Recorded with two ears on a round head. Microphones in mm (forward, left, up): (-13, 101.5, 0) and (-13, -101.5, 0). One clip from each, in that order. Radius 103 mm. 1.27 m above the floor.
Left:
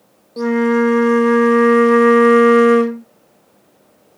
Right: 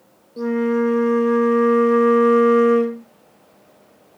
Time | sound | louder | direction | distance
0.4 | a flute | left 5 dB | 30° left (ahead or behind) | 0.6 m